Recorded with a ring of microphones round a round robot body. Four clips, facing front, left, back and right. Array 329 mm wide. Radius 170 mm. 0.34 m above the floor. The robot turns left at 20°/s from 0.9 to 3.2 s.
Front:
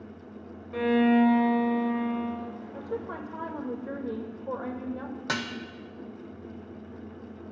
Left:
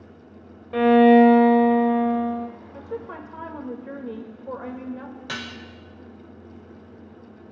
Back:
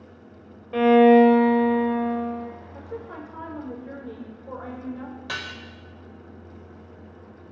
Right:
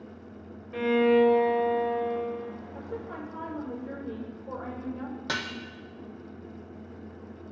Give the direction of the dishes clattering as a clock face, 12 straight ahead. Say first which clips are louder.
Right 1 dB, front 4 dB; 1 o'clock.